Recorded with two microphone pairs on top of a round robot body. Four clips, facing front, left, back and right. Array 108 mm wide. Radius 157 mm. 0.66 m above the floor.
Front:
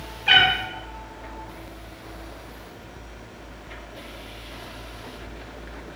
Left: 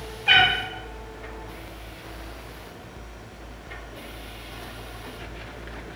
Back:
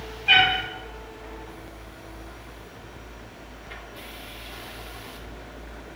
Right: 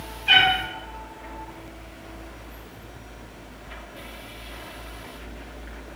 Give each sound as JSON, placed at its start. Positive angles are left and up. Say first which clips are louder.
{"t": 0.3, "sound": "a cat meowing", "louder": "even, front 1 dB", "azimuth_deg": 35, "distance_m": 1.4}